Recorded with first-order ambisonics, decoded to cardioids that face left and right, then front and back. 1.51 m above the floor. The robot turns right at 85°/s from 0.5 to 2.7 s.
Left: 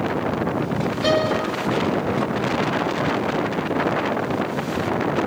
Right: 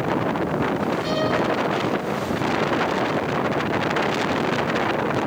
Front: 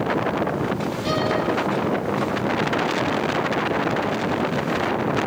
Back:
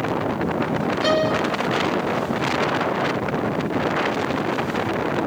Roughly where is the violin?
Behind left.